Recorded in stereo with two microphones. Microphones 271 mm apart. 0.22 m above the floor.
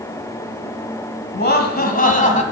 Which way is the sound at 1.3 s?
40° left (ahead or behind).